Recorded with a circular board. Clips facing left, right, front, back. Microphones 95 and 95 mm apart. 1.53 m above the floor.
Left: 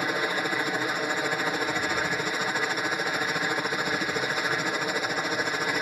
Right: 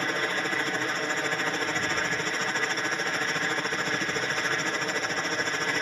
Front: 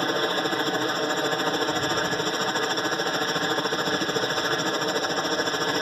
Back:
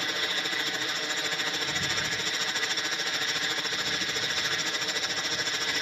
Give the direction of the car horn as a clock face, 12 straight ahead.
No car horn in this recording.